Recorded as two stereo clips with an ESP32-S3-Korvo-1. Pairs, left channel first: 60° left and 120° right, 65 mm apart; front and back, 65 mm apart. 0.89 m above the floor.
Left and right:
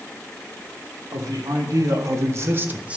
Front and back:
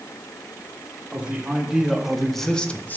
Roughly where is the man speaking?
Right.